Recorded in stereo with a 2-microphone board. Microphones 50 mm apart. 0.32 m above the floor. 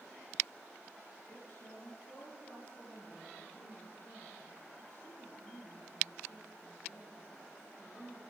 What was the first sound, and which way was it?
A woman speaking, 60° left (ahead or behind).